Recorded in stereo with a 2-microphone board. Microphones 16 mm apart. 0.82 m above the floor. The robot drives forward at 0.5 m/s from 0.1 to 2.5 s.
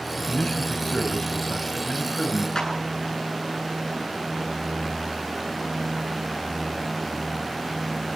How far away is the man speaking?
About 5 m.